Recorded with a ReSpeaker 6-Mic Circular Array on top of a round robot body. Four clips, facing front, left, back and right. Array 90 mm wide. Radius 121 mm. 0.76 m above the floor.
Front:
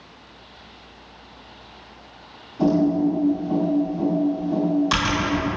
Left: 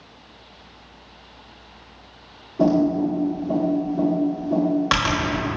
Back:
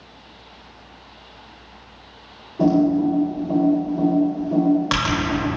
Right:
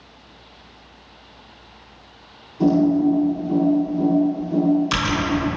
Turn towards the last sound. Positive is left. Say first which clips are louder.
# right 2 dB, back 2 dB
turn(degrees=115)